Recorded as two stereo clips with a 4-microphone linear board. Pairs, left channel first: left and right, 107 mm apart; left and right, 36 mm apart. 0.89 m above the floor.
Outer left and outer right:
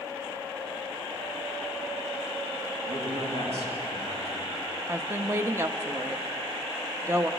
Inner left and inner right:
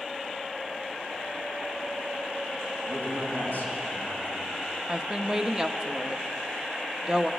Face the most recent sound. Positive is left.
turn(degrees=-25)  # may be behind; listen again after turning